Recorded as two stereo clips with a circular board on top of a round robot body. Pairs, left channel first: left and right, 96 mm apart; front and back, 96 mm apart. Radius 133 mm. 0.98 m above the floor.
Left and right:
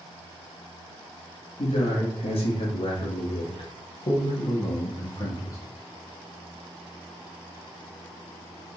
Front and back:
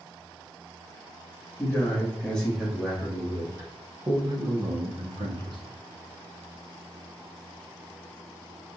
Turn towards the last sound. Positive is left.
turn(degrees=150)